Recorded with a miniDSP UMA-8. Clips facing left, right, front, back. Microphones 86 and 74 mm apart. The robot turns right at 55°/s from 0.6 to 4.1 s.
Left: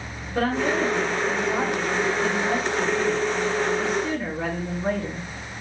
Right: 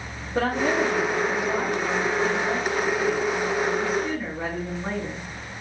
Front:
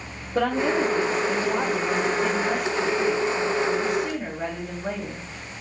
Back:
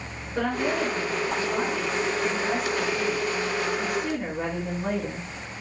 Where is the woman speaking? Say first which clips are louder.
Even, front 4 dB; 20° right, 1.8 m; by 5.3 s 170° left, 1.8 m.